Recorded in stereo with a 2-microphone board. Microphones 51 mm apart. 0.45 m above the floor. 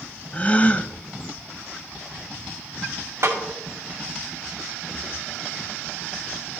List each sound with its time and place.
0.3 s a gasp: 30° left (ahead or behind), 0.6 m
3.2 s a snare drum: 60° right (ahead or behind), 2 m